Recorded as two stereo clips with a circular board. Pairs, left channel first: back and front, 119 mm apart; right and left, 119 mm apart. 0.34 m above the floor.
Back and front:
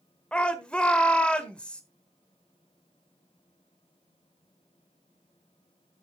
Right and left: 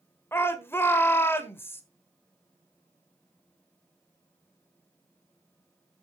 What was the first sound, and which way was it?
A shout, 115° right.